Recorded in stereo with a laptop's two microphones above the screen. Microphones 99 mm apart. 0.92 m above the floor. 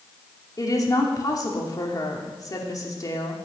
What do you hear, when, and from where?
0.6 s a woman speaking: 40° left (ahead or behind), 3 m